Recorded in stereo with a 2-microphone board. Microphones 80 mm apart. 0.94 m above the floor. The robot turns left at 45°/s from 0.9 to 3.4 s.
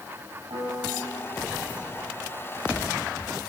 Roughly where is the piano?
Right.